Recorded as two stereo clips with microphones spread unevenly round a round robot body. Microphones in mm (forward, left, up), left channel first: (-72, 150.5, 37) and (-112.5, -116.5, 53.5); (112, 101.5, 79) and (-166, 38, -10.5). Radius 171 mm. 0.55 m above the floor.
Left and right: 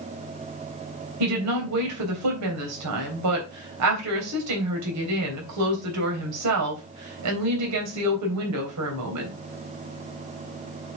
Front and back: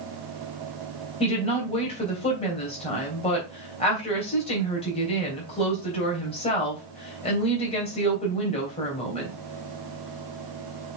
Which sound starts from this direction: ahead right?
A woman speaking, at 1.2 s.